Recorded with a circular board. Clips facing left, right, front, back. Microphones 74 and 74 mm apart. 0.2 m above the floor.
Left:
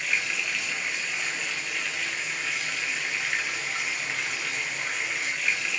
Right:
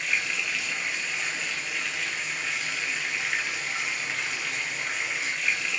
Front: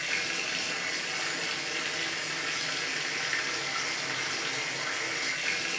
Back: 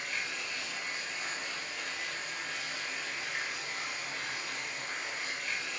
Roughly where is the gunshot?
I don't hear a gunshot.